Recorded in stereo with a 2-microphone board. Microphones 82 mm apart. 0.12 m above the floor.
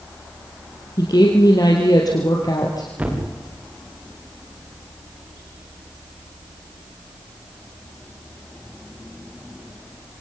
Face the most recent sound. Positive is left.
turn(degrees=-15)  # may be behind; listen again after turning